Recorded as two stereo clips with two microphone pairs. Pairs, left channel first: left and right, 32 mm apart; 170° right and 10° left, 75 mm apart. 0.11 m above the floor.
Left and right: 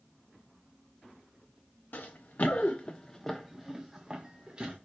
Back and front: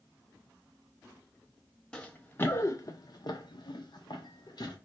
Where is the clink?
No clink in this recording.